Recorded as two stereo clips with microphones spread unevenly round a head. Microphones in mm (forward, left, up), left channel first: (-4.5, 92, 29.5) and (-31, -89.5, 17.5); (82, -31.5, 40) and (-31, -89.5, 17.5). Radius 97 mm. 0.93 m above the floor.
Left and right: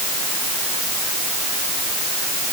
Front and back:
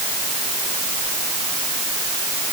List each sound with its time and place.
Only background noise.